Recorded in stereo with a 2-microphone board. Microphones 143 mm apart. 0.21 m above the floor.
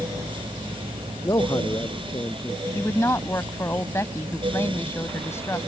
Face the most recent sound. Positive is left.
turn(degrees=20)  # may be behind; listen again after turning